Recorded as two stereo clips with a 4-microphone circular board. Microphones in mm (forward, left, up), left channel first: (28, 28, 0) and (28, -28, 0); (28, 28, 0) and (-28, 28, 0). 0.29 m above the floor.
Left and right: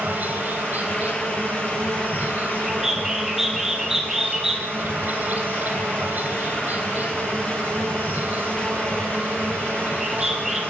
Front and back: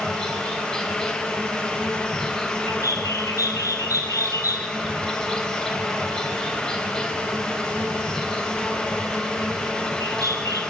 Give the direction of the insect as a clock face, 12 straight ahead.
2 o'clock.